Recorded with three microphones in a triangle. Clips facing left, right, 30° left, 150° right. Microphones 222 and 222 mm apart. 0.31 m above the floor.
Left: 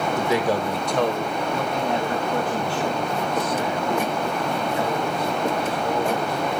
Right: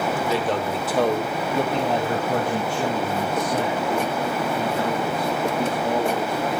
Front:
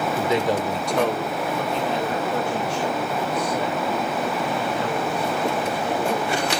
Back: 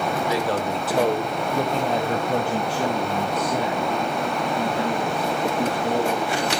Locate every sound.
0.1 s a man speaking: 50° left, 1.1 m; by 6.5 s 130° right, 5 m